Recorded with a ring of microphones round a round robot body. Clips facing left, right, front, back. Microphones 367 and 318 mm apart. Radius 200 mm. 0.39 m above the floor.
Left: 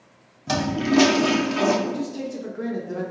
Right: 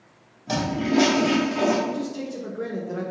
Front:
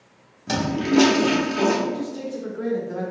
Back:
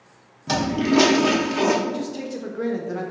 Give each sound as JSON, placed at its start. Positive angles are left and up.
{"t": 0.5, "sound": "a toilet flushing", "azimuth_deg": 105, "distance_m": 1.3}
{"t": 1.9, "sound": "a man speaking", "azimuth_deg": 175, "distance_m": 1.5}